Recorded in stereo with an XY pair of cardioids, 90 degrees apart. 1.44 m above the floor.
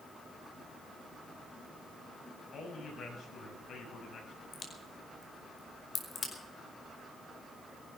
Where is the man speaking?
65° left, 7.5 m.